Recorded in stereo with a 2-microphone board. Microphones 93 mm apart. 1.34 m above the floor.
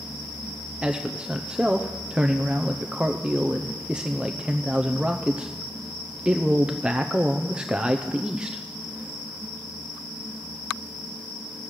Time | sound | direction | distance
0.8 | a man speaking | 10° right (ahead or behind) | 0.6 m